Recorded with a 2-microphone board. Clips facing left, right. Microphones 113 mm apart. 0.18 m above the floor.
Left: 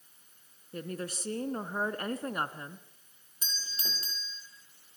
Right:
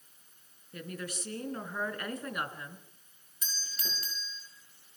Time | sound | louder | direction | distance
0.7 | a woman speaking | left 3 dB | 35° left (ahead or behind) | 2 m
3.4 | a doorbell | even | 25° left (ahead or behind) | 5.5 m